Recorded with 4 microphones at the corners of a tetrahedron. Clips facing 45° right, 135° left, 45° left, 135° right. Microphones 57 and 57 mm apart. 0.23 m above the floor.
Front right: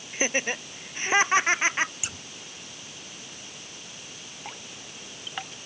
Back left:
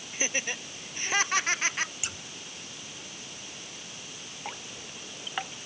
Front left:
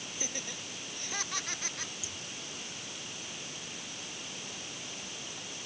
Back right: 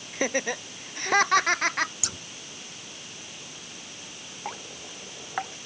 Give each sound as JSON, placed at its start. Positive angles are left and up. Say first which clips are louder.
{"t": 0.1, "sound": "laughter", "louder": "front right 5 dB, back right 17 dB", "azimuth_deg": -110}
{"t": 2.0, "sound": "scissors", "louder": "even, back right 6 dB", "azimuth_deg": -135}
{"t": 4.5, "sound": "dripping", "louder": "back left 2 dB, back right 6 dB", "azimuth_deg": -145}